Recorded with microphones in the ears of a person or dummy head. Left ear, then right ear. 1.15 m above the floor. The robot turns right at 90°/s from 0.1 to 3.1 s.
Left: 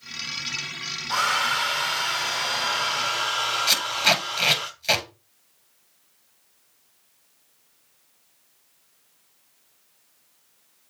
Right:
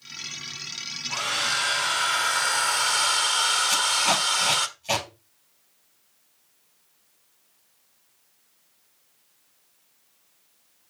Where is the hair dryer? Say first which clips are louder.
Left 4 dB; 110° left, 1.6 m; by 4.7 s 70° right, 1.6 m.